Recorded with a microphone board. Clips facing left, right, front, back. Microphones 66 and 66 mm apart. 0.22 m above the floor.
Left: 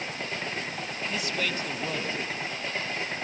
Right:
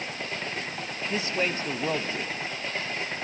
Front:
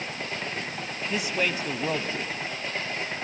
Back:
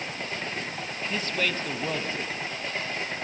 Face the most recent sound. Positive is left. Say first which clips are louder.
# right 4 dB, front 2 dB
turn(degrees=-65)